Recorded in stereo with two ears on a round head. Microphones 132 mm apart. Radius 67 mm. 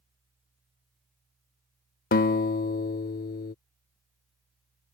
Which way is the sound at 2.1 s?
65° left (ahead or behind).